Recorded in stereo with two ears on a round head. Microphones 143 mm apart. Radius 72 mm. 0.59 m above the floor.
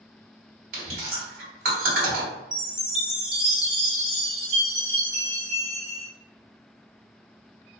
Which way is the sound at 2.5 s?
5° right (ahead or behind).